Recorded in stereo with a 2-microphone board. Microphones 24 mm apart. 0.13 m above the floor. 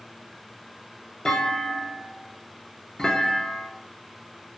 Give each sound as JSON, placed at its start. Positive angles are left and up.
{"t": 1.2, "sound": "a clunk", "side_deg": 35, "distance_m": 0.6}